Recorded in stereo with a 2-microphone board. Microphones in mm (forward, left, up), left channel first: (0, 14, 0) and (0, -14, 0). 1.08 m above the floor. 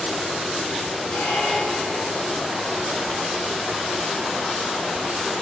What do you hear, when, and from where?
1.1 s a squeak: 80° left, 8.5 m